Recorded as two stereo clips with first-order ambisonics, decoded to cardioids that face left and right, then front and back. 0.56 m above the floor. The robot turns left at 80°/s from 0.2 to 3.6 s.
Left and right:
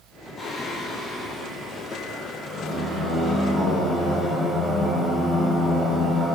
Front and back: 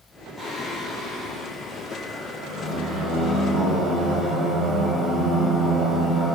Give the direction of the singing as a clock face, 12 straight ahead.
9 o'clock.